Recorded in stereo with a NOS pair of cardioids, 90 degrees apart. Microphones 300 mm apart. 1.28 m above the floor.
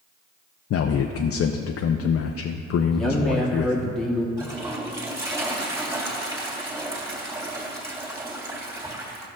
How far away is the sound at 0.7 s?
About 0.5 m.